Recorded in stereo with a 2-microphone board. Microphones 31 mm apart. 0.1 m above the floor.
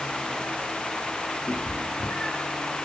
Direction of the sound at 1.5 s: 70° left (ahead or behind).